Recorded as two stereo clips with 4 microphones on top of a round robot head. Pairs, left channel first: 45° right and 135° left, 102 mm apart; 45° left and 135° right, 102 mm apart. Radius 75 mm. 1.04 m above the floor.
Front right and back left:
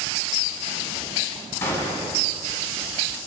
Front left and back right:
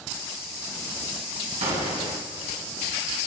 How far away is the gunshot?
About 7 m.